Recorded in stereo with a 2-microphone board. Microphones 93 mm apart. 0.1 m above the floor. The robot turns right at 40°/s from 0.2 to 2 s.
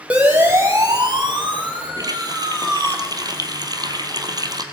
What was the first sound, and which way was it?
A siren, 15° right (ahead or behind).